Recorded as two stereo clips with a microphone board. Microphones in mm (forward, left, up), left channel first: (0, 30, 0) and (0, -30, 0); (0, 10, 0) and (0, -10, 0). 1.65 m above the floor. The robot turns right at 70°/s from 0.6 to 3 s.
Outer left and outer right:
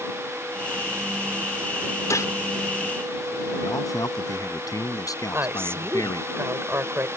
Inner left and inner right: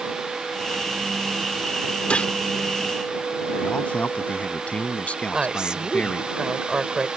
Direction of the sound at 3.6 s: 85° left.